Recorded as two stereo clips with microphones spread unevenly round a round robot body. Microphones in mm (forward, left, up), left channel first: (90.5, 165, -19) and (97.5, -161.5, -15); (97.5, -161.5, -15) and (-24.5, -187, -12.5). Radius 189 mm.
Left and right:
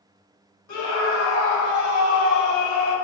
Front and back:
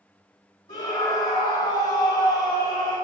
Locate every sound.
0.7 s a scream: 55° left, 2.5 m; by 3.0 s 65° left, 3.5 m